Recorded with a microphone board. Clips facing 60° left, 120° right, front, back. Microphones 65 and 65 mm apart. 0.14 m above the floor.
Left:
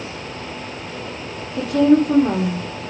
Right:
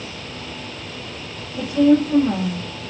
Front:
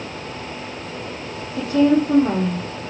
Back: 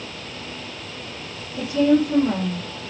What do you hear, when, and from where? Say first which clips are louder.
1.6 s a woman speaking: left 1 dB, front 2 dB; 40° left, 4.5 m